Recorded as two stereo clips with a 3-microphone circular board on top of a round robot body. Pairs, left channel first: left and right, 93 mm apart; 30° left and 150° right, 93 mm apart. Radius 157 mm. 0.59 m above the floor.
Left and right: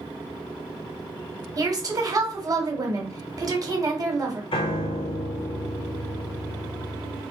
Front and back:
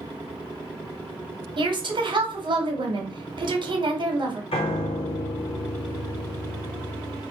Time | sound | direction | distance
1.6 | a woman speaking | 130° right | 1.5 m
4.5 | a piano | 55° left | 0.5 m